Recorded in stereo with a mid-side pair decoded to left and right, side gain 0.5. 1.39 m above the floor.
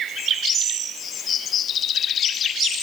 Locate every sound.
Only background noise.